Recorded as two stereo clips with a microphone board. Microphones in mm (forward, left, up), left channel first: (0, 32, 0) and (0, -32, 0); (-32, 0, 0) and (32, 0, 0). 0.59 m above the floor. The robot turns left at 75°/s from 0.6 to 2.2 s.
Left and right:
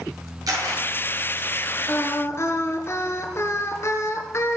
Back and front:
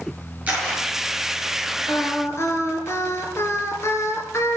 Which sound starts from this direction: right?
A camera shutter, at 0.5 s.